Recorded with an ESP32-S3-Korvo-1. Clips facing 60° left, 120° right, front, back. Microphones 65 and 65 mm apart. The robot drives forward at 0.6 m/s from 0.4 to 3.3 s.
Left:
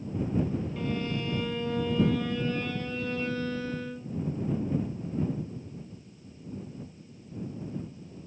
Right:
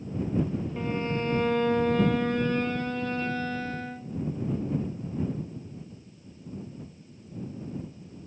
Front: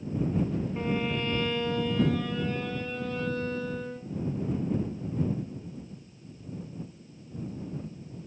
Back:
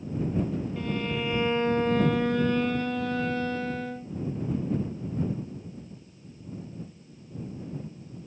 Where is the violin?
55° right, 0.5 m; by 4.2 s 165° right, 1.4 m.